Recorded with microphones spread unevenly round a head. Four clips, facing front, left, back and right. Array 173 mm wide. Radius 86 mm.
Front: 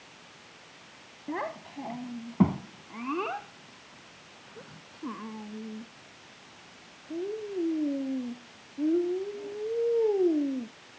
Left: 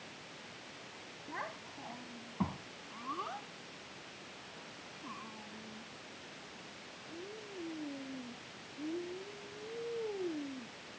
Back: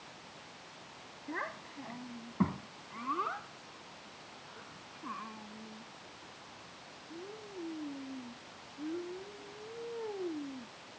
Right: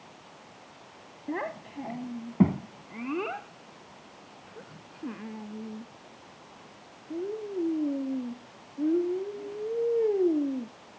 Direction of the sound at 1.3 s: 70° right.